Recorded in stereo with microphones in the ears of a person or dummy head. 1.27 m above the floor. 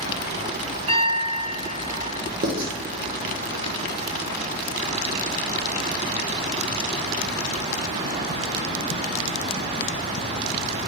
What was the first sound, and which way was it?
A piano, 35° right (ahead or behind).